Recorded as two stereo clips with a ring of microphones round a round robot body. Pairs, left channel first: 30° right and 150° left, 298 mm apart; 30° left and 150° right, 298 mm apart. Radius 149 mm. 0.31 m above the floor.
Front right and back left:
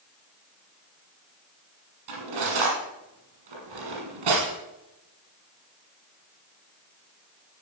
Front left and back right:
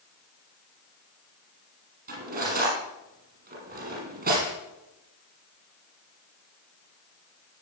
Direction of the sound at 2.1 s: 150° left.